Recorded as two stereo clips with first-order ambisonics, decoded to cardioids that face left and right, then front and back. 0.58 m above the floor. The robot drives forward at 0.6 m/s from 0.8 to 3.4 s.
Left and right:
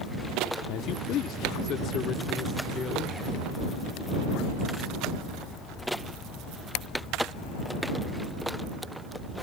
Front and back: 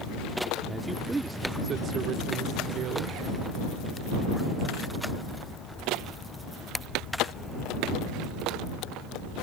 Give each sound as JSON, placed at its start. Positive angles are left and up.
{"t": 0.7, "sound": "a man speaking", "azimuth_deg": 90}